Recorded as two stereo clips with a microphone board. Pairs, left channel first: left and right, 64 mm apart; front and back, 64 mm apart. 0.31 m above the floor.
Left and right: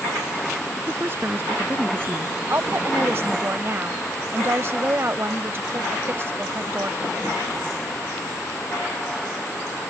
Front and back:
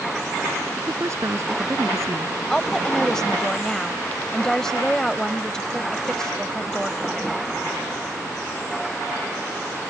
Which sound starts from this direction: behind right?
A woman speaking, at 0.8 s.